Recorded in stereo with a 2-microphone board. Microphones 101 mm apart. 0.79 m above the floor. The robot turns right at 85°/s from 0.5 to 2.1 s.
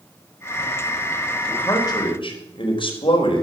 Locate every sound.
1.5 s a man speaking: 5° left, 4.5 m; by 3.4 s 60° left, 4.5 m